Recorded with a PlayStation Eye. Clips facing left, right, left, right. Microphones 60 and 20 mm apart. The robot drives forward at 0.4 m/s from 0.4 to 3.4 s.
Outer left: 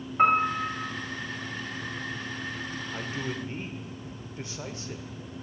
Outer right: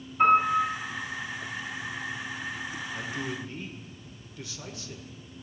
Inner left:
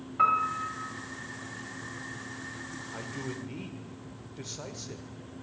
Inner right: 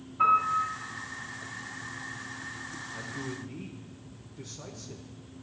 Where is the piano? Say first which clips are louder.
Outer right 2 dB, inner right 2 dB; 55° left (ahead or behind), 3 m.